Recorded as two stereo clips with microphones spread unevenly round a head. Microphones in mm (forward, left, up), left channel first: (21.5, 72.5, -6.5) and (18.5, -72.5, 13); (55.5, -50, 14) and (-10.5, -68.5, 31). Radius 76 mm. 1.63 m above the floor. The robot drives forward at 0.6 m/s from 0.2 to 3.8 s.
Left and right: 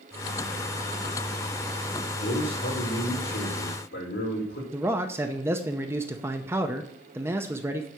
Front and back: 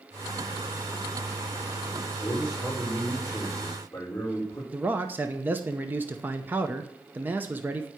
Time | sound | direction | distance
2.2 | a man speaking | 80° left | 6 m
4.7 | a man speaking | 150° right | 0.7 m